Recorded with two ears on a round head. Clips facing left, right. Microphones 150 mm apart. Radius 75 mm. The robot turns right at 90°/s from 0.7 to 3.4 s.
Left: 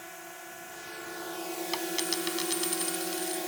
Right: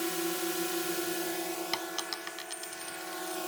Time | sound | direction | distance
0.0 | a drone | 75° right | ?
1.7 | a dropped coin | 5° right (ahead or behind) | ?